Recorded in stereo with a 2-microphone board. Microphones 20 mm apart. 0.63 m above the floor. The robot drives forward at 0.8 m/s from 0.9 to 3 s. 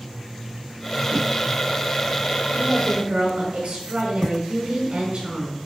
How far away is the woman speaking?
About 6.5 m.